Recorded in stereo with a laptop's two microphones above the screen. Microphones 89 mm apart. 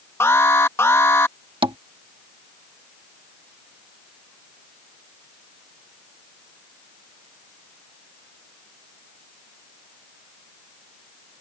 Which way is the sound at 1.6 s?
70° right (ahead or behind).